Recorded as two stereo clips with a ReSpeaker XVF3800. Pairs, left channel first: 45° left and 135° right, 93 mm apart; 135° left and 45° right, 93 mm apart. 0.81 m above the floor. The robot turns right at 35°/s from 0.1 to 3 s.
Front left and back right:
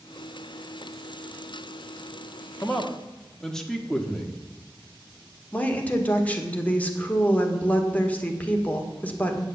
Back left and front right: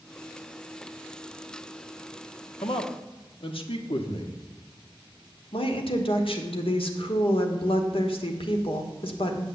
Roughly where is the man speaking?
Behind left.